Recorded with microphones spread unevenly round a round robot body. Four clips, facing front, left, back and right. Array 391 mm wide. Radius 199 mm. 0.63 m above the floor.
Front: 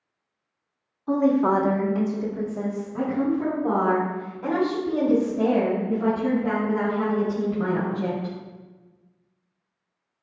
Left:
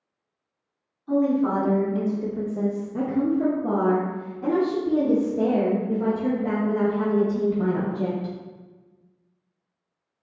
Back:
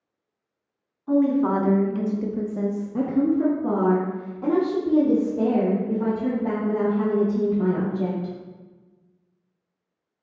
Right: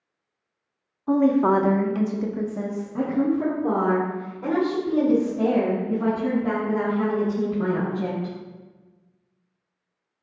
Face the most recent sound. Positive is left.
turn(degrees=140)